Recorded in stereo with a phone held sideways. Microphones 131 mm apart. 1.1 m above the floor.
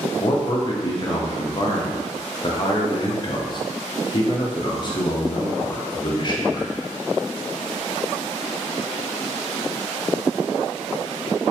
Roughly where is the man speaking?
Left.